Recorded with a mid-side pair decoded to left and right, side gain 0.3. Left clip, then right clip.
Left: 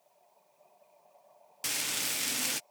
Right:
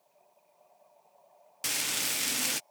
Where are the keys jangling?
I don't hear keys jangling.